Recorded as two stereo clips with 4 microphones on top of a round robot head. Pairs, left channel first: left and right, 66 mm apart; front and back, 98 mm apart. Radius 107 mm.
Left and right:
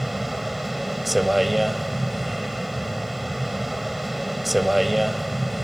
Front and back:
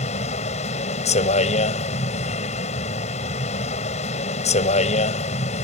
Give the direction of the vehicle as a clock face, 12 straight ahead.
12 o'clock.